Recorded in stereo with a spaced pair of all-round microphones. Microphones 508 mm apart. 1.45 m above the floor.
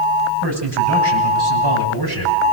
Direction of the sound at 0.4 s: 55° right (ahead or behind).